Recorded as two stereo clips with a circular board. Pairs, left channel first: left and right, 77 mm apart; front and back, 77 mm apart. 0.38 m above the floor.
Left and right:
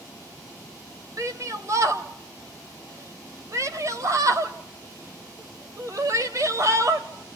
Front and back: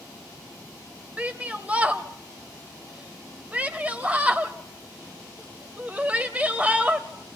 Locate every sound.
1.2 s a shout: 115° right, 1.4 m